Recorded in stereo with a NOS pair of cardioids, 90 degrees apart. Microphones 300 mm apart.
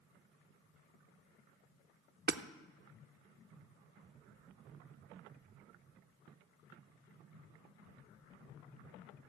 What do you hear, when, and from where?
2.3 s hammering: 35° right, 0.7 m